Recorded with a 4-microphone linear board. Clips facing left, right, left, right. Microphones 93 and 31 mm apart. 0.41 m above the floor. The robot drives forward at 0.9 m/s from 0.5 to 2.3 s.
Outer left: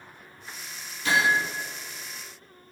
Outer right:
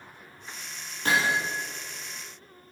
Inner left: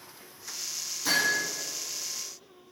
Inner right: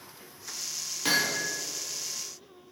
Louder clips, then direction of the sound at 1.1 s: Outer left 2 dB, inner left 1 dB; 45° right (ahead or behind).